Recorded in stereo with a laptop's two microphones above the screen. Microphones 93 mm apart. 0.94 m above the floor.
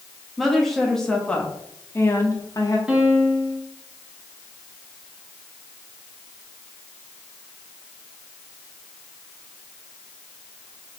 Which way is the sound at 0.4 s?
Centre (ahead or behind).